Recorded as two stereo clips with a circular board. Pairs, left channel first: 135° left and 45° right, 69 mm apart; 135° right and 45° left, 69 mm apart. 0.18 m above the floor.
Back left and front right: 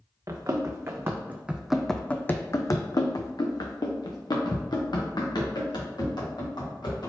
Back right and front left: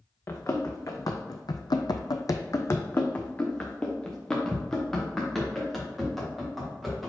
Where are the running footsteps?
85° right, 1.0 m; by 7.1 s 135° left, 2.5 m.